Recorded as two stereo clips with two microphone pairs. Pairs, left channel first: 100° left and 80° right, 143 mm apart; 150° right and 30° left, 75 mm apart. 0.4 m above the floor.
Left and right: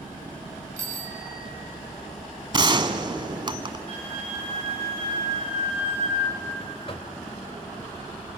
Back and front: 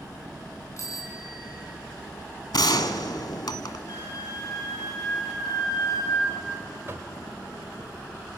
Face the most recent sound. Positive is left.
turn(degrees=70)